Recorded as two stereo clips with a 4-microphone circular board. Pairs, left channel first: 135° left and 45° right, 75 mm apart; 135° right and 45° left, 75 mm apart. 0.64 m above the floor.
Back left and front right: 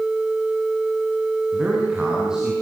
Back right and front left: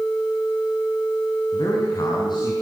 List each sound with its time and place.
1.5 s a man speaking: 125° right, 7 m